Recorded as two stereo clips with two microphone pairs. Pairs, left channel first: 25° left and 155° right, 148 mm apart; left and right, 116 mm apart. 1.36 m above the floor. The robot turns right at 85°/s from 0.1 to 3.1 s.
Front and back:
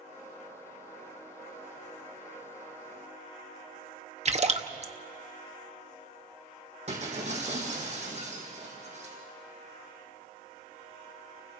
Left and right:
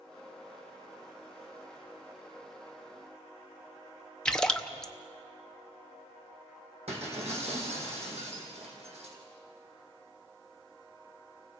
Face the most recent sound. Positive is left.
turn(degrees=-115)